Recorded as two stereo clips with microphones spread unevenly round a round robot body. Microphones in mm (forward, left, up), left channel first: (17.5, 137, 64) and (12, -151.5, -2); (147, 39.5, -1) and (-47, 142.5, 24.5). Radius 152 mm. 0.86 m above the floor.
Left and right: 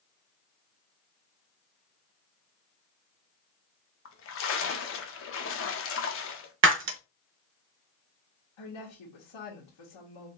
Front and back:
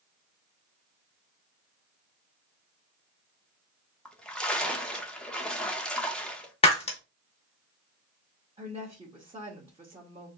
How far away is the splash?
About 0.9 m.